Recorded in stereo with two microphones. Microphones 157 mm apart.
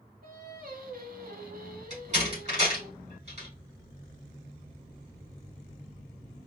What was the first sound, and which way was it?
Singing, 75° right (ahead or behind).